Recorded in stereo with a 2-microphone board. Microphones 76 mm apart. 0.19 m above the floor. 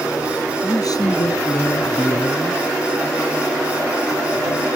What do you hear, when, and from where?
0.6 s a man speaking: 60° left (ahead or behind)